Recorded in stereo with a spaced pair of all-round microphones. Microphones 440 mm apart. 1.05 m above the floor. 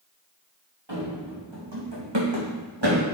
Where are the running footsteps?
70° right (ahead or behind), 3.5 m; by 3.0 s 65° right (ahead or behind), 3 m.